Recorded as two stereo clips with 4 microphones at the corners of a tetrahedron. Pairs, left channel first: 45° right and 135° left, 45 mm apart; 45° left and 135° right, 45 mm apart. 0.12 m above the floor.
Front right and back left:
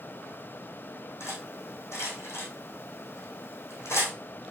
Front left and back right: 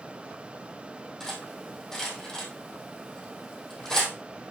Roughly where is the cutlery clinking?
Ahead right.